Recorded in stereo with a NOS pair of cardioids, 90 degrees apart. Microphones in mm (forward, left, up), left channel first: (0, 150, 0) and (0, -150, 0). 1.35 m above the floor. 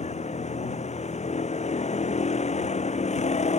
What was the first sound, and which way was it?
A vehicle, 20° left.